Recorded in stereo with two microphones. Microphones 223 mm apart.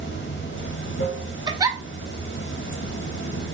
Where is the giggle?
15° right (ahead or behind), 0.5 m.